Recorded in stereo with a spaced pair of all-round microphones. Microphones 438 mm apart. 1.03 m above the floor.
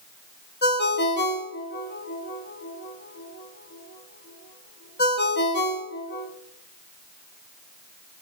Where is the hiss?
No hiss in this recording.